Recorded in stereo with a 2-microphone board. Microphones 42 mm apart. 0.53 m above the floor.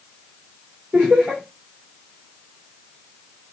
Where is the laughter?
35° right (ahead or behind), 1.8 m.